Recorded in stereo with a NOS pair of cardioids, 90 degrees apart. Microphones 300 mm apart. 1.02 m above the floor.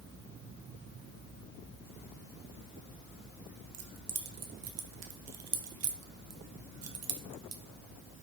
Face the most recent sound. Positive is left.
turn(degrees=-55)